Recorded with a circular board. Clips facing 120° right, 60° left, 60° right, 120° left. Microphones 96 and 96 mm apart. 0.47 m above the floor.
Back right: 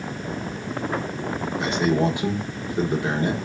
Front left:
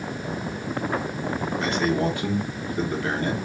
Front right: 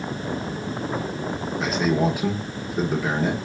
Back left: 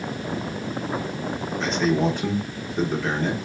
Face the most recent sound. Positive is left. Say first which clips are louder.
# back right 3 dB, even
turn(degrees=-135)